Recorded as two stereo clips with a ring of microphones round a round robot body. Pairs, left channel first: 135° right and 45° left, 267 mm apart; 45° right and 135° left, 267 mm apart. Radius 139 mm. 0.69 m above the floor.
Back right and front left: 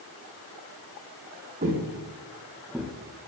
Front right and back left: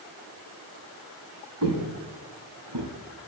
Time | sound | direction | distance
1.6 | footsteps | 105° left | 1.7 m